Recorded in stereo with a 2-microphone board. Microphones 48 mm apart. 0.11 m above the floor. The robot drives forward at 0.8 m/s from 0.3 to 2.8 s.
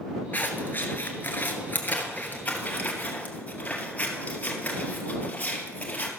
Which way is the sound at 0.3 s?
40° left (ahead or behind).